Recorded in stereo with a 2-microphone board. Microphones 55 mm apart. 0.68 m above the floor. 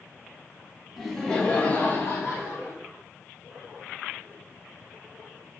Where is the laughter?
Centre (ahead or behind), 0.7 m; by 2.8 s 55° left (ahead or behind), 1.1 m.